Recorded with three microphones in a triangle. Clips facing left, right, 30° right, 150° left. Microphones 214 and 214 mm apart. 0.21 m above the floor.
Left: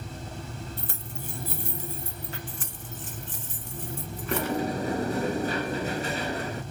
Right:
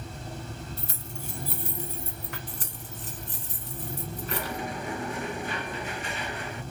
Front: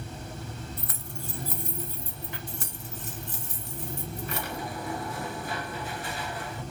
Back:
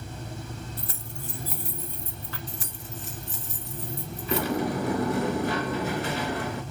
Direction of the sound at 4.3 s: 140° left.